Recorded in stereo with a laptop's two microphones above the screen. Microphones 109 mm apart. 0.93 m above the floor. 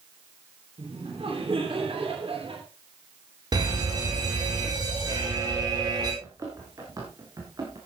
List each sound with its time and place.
0.8 s laughter: 60° right (ahead or behind), 3 m
3.5 s a fire alarm: 40° right (ahead or behind), 4 m
6.2 s running footsteps: 30° right (ahead or behind), 4 m; by 7.8 s 40° right (ahead or behind), 3.5 m